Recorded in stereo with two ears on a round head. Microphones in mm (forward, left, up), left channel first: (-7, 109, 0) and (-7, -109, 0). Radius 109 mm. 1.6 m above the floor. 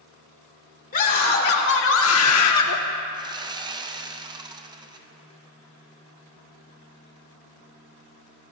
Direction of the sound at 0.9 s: 35° left (ahead or behind).